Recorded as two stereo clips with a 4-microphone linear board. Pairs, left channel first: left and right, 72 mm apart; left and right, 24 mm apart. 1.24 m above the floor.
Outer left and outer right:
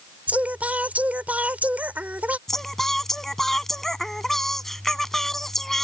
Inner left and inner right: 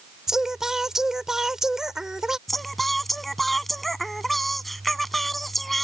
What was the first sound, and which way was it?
Singing, 20° right (ahead or behind).